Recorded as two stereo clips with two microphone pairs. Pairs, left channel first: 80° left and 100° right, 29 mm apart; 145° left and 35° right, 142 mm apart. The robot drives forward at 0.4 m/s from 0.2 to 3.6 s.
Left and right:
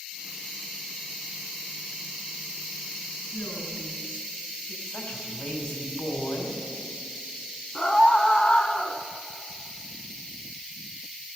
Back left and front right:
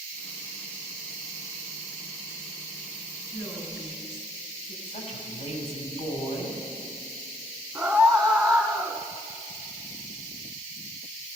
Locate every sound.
3.3 s a woman speaking: 80° left, 4.5 m
4.9 s a woman speaking: 115° left, 2.5 m
7.8 s a scream: 60° left, 1.2 m